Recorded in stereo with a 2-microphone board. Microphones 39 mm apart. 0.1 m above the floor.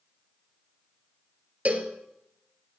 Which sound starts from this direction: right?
A cowbell, at 1.6 s.